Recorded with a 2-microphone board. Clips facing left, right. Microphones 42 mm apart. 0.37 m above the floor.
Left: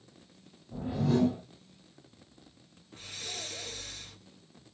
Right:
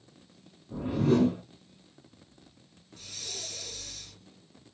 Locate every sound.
0.7 s a whoosh: 90° right, 3 m
2.9 s breathing: 35° left (ahead or behind), 1.2 m